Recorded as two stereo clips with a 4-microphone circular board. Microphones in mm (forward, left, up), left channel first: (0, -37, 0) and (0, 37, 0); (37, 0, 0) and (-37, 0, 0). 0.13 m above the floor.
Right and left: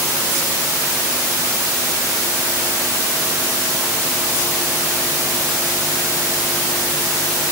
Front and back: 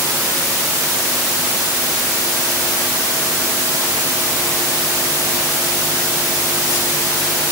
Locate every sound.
Only background noise.